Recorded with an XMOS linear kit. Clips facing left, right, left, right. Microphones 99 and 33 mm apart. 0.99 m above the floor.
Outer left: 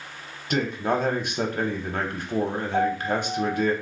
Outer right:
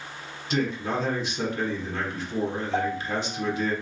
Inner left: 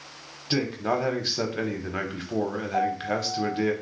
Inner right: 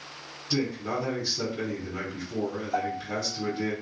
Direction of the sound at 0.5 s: 55° left (ahead or behind).